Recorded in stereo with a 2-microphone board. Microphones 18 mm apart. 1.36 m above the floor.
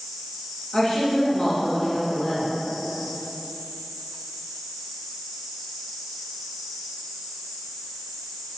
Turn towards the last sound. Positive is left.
turn(degrees=40)  # may be behind; listen again after turning